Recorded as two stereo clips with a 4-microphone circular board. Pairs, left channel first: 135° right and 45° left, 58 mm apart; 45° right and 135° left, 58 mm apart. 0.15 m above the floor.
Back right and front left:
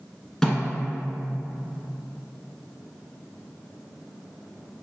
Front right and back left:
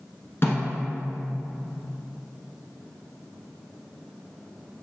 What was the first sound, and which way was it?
A snare drum, 50° right.